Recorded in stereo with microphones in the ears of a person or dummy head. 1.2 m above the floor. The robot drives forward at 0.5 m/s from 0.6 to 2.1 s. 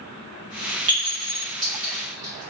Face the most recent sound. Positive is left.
turn(degrees=-20)  # may be behind; listen again after turning